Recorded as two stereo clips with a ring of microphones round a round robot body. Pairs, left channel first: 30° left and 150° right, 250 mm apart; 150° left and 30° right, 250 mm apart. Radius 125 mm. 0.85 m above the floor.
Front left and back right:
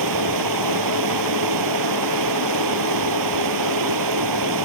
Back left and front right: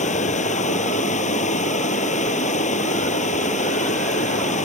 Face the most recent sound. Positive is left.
turn(degrees=-145)